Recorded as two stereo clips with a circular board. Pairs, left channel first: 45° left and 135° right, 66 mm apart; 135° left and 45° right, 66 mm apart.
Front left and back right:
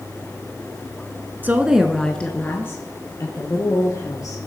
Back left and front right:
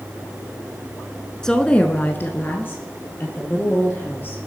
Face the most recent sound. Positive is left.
turn(degrees=75)